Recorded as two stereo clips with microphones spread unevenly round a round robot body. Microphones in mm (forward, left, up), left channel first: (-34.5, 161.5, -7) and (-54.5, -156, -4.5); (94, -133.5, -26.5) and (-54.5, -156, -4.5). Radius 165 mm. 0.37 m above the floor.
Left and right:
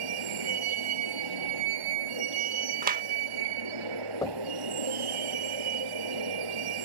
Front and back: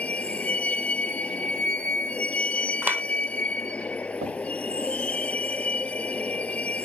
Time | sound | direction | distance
0.0 | a vehicle | 75° right | ?
2.8 | a clap | 90° right | ?
4.2 | knocking | 165° left | ?